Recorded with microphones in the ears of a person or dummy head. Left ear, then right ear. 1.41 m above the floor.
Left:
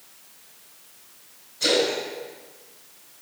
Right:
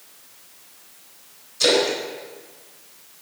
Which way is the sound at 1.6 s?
70° right (ahead or behind).